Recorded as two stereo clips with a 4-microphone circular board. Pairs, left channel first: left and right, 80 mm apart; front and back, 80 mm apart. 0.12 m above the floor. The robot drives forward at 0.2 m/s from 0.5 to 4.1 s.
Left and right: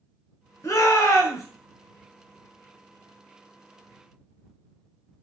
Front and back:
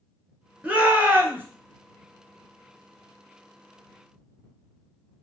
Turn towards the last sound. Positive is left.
turn(degrees=140)